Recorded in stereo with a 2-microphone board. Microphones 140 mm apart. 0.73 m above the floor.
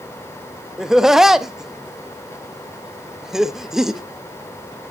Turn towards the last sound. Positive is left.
turn(degrees=-5)  # may be behind; listen again after turning